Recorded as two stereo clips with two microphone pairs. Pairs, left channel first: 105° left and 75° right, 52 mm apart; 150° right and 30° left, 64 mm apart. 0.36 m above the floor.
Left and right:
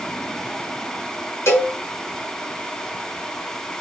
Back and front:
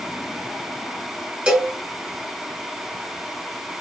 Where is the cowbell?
95° left, 1.1 m.